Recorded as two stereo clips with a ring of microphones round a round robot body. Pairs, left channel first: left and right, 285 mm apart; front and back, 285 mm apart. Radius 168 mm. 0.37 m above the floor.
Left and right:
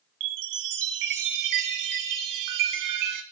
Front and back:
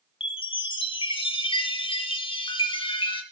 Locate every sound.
0.2 s a chime: 70° right, 2.5 m